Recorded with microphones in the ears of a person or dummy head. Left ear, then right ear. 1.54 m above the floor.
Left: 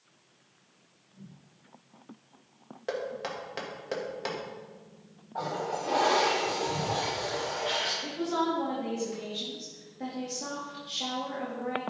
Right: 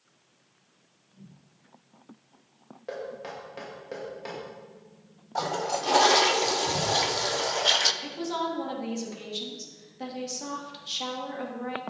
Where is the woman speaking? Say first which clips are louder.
Left 1 dB; 45° right (ahead or behind), 3 m.